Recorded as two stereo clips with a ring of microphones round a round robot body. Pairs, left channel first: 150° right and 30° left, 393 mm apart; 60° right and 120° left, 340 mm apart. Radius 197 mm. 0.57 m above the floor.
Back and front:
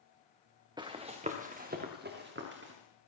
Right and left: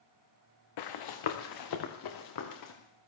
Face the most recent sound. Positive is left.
turn(degrees=-35)